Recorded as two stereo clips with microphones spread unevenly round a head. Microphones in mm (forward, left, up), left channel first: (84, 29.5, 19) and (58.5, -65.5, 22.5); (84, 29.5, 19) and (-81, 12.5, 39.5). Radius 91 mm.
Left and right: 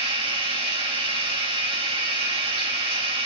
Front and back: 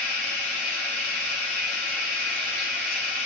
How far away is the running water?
About 3 m.